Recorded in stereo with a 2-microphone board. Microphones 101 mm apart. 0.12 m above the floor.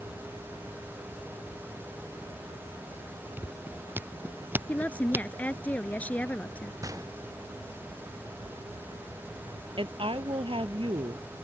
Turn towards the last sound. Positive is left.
turn(degrees=-60)  # may be behind; listen again after turning